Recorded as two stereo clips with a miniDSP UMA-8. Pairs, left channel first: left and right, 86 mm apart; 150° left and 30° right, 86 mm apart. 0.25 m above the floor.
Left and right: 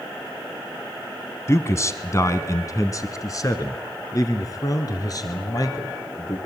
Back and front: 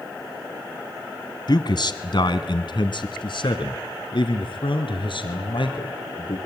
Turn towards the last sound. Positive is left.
turn(degrees=135)